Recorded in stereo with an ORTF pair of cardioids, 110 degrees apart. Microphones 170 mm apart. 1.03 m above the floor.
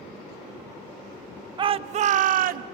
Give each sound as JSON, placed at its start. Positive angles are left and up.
{"t": 1.6, "sound": "a shout", "azimuth_deg": -30, "distance_m": 0.8}